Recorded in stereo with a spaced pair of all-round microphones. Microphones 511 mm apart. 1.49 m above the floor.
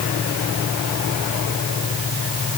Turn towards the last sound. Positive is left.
No sound to turn to.